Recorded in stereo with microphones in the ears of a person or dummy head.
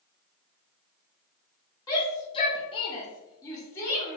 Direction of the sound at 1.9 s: 15° left (ahead or behind).